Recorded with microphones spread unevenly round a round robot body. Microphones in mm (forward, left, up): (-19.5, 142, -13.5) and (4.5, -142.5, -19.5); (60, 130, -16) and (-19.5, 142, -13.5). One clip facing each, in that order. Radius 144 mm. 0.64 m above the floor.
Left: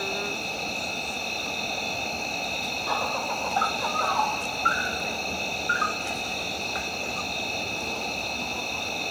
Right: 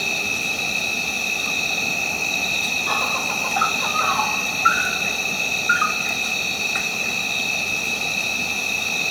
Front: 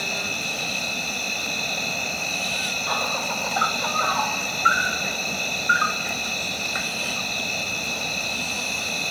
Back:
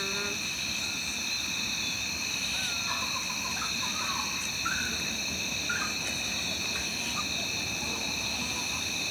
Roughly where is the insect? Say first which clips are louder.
Even, front 5 dB; ahead right.